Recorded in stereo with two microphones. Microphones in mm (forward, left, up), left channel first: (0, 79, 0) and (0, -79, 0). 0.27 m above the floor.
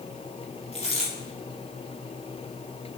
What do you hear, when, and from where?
0.7 s a dropped coin: 40° left (ahead or behind), 3.5 m